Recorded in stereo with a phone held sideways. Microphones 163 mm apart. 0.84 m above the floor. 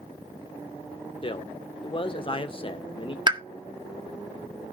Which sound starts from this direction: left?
A man speaking, at 1.2 s.